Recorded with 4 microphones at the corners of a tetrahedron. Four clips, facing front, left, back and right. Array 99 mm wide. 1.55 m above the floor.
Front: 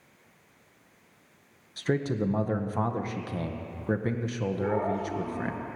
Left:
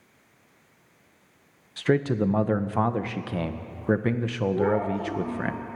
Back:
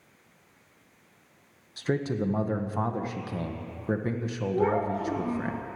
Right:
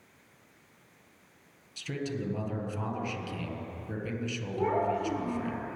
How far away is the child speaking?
About 7.5 m.